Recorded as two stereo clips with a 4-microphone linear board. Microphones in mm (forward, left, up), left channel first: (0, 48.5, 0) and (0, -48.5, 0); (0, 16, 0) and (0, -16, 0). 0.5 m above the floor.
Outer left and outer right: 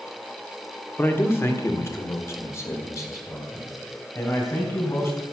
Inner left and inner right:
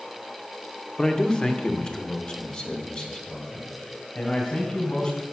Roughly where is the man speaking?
Left.